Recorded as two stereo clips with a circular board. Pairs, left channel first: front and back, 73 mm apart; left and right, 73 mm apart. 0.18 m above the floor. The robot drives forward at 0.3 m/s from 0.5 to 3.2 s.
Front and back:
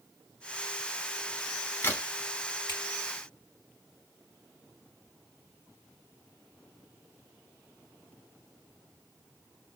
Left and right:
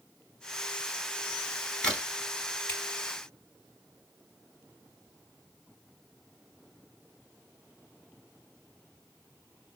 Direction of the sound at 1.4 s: 15° left.